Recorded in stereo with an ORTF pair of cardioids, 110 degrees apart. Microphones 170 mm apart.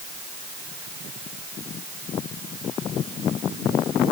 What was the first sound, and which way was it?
Only background noise.